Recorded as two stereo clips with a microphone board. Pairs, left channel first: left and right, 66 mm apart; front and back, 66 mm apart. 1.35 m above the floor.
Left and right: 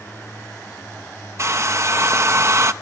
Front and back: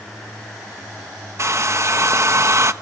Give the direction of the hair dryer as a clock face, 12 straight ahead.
4 o'clock.